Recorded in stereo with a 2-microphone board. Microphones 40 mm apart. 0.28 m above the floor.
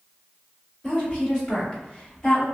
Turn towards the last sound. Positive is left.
turn(degrees=25)  # may be behind; listen again after turning